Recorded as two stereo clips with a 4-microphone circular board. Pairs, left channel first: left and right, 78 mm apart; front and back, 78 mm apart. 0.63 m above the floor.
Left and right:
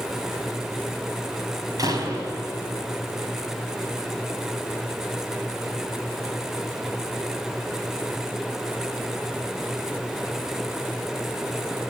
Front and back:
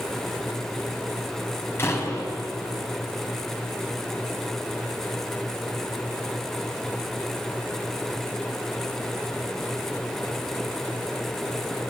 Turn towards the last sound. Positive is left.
turn(degrees=-55)